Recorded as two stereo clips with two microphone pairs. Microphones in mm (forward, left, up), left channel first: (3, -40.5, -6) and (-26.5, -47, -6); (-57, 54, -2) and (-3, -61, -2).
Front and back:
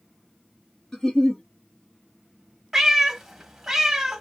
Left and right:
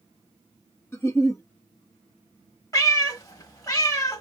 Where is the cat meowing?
125° left, 0.6 m.